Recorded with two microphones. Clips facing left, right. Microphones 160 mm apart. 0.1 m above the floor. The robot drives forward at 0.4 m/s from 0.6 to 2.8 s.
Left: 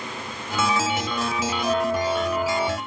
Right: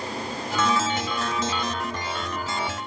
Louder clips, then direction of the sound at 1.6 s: Left 8 dB; 85° left.